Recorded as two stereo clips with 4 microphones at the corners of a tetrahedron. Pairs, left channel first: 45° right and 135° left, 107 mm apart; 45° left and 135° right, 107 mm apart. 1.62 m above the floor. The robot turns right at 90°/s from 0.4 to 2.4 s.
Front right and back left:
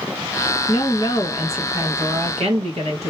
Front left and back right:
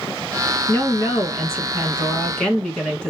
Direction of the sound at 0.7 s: 30° right.